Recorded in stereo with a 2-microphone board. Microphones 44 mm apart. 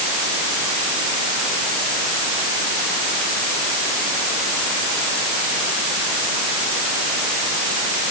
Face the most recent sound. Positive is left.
No sound to turn to.